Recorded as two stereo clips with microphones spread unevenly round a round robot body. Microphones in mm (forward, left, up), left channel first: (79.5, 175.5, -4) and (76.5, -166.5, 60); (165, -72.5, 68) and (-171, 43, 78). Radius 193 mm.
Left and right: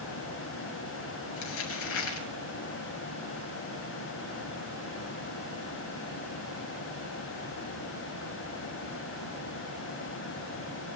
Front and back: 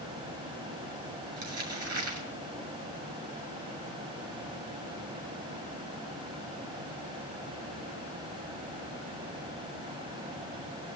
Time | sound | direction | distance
1.4 | crumpling | 110° left | 7.5 m